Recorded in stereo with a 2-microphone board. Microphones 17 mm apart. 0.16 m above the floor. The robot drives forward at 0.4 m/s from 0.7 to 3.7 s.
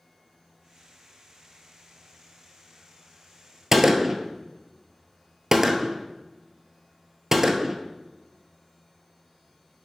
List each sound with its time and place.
3.7 s a gunshot: 25° right (ahead or behind), 0.7 m